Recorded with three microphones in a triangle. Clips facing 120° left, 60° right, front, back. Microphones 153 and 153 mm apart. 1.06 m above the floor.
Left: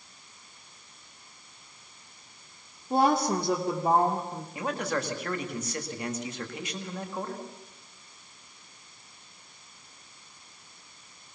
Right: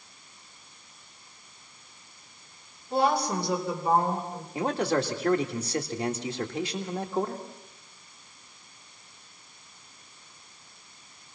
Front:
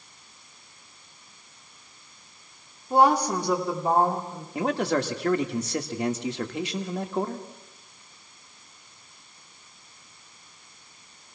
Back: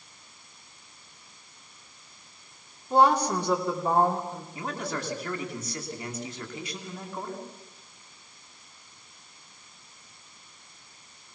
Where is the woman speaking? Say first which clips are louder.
Left 1 dB, front 1 dB; 75° left, 3 m.